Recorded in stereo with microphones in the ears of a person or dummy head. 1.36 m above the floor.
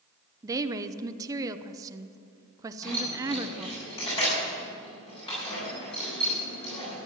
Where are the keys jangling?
30° left (ahead or behind), 6.5 m.